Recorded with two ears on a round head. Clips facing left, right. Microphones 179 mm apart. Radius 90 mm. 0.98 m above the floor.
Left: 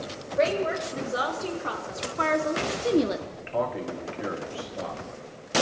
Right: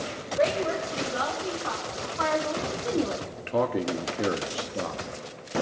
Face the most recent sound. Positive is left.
turn(degrees=-50)  # may be behind; listen again after turning